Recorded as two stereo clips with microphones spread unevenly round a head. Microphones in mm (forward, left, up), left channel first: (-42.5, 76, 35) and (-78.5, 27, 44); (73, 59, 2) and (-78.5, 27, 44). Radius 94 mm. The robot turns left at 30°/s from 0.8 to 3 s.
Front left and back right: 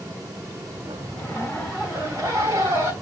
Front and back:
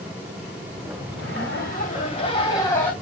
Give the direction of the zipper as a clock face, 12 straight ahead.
1 o'clock.